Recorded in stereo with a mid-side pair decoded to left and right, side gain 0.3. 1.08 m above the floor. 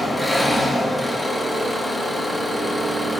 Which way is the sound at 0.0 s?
10° left.